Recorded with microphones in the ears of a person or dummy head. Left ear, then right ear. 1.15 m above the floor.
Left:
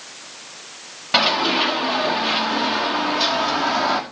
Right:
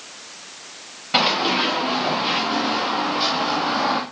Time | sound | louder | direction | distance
1.1 | running footsteps | left 1 dB | 10° left (ahead or behind) | 6 m